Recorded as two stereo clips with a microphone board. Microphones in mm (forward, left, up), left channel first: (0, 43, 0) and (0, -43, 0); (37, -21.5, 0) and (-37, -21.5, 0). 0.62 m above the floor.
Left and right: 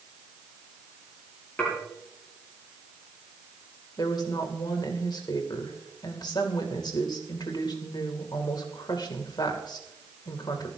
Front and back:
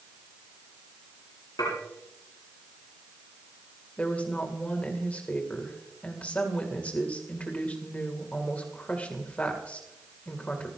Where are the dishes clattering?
20° left, 8.5 m.